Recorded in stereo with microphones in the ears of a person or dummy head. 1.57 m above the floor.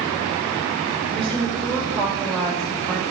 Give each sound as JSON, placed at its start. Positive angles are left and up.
{"t": 1.1, "sound": "a woman speaking", "side_deg": -30, "distance_m": 2.5}